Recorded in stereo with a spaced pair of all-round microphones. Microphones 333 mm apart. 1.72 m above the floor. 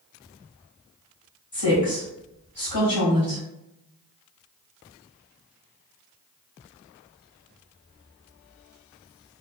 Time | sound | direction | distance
1.5 | a woman speaking | 75° left (ahead or behind) | 1.5 m